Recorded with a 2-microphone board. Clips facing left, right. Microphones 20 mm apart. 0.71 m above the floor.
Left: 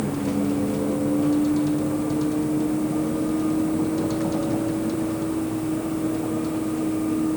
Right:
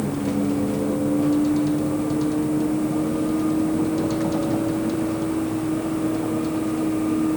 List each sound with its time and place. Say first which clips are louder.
0.0 s a vehicle: right 1 dB; 5° right (ahead or behind); by 7.4 s 15° right (ahead or behind)